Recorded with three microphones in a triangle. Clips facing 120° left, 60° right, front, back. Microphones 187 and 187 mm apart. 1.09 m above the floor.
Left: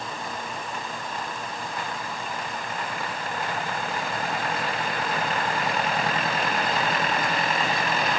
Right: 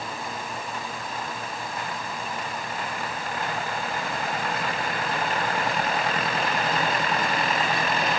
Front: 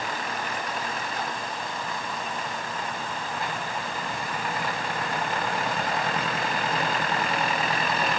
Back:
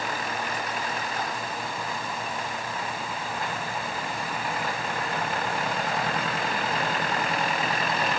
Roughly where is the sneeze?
I don't hear a sneeze.